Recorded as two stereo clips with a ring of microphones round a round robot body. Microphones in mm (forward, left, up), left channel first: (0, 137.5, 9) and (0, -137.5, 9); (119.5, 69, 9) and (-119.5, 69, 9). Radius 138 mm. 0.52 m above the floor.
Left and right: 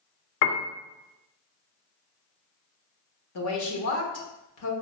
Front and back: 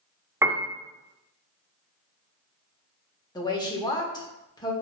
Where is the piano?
100° left, 0.6 m.